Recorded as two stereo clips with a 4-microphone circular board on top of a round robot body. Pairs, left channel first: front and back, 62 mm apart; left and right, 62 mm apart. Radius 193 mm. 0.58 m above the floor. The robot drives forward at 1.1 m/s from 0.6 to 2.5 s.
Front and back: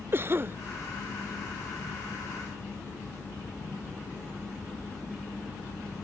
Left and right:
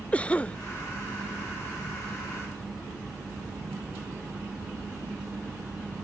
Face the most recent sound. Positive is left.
turn(degrees=175)